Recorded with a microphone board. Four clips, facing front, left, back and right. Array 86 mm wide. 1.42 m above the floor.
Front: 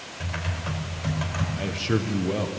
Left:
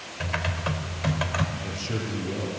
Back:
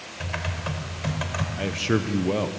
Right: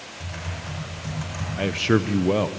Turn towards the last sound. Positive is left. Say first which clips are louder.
# right 11 dB, back 2 dB
turn(degrees=-105)